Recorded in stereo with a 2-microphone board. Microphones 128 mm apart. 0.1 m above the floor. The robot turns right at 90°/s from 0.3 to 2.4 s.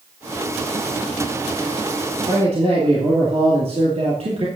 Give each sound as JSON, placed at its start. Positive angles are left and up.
{"t": 2.3, "sound": "a man speaking", "side_deg": -45, "distance_m": 2.5}